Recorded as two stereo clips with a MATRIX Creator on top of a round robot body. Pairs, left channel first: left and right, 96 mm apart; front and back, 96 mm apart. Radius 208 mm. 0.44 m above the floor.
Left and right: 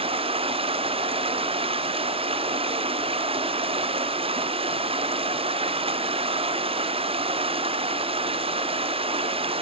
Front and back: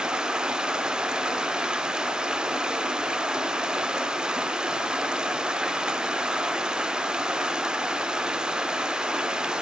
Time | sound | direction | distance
0.0 | running water | 100° right | 0.8 m